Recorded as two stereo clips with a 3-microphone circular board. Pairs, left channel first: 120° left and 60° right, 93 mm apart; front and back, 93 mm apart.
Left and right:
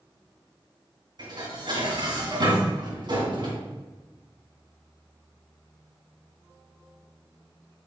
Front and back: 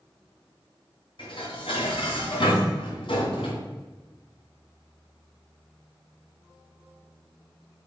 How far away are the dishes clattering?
About 3 m.